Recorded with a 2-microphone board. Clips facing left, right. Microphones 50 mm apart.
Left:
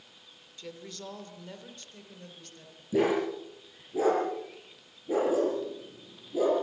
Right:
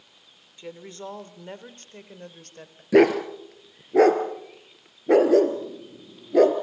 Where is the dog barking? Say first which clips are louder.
Right 9 dB; 75° right (ahead or behind), 3.5 m.